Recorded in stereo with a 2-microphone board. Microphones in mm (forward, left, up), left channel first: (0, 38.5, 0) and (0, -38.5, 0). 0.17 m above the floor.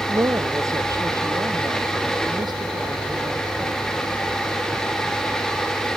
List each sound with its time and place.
0.1 s a woman speaking: 40° right (ahead or behind); by 4.2 s 70° right (ahead or behind)